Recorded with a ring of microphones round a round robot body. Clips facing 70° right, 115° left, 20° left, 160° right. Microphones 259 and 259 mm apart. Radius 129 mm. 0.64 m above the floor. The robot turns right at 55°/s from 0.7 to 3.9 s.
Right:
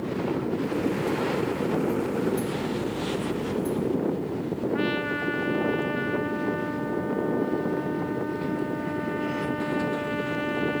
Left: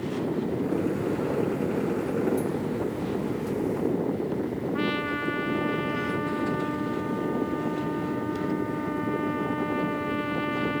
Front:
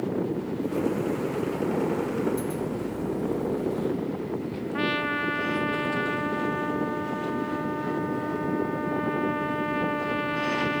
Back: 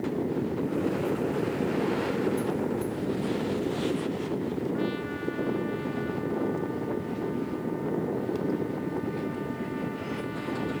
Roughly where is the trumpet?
Ahead left.